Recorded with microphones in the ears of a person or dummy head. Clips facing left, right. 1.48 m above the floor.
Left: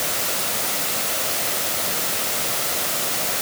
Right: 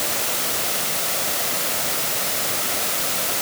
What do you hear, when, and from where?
Only background noise.